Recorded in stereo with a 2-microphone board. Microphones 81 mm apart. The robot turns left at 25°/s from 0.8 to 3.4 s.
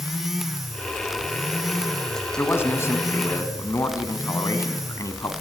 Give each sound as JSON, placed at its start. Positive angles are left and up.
{"t": 2.4, "sound": "a man speaking", "side_deg": 25, "distance_m": 2.5}